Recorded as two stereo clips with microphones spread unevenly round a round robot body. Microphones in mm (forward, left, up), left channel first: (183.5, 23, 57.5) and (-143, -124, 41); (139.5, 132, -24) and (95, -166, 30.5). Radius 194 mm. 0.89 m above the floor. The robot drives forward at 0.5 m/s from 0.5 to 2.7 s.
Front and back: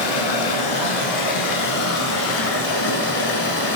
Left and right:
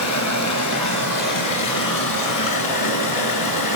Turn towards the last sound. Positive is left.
turn(degrees=80)